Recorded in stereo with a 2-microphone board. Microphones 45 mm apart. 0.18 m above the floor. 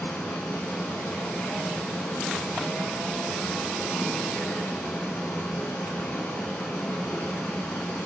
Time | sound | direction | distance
0.0 | running water | 60° left (ahead or behind) | 5.5 m